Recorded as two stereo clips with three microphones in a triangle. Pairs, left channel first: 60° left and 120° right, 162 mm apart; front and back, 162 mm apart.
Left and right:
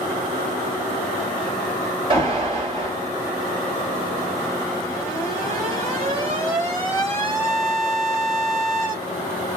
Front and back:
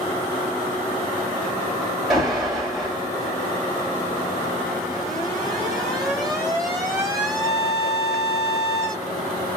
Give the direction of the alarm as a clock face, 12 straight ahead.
3 o'clock.